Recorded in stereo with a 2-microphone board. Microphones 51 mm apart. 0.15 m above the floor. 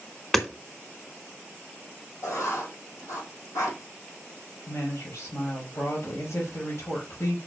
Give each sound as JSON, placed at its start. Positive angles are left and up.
{"t": 0.3, "sound": "hammering", "side_deg": 5, "distance_m": 1.1}
{"t": 2.2, "sound": "writing", "side_deg": 75, "distance_m": 4.5}
{"t": 4.7, "sound": "a woman speaking", "side_deg": 65, "distance_m": 4.0}